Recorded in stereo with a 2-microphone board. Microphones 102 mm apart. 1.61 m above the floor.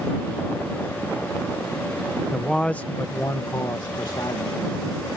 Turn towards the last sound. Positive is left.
turn(degrees=55)  # may be behind; listen again after turning